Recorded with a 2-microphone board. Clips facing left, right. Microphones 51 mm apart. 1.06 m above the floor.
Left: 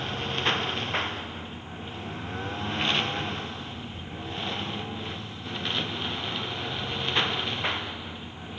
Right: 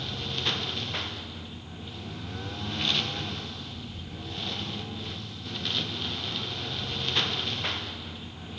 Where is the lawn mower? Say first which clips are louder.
Left 4 dB; 35° left (ahead or behind); by 8.6 s 20° left (ahead or behind).